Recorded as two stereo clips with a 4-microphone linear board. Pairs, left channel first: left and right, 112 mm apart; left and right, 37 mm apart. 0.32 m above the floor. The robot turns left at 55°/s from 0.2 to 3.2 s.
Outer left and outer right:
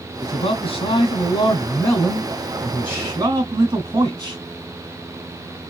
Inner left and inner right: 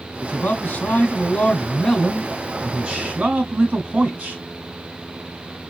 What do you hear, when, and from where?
0.2 s a man speaking: 120° left, 2.5 m; by 4.4 s 40° right, 2.5 m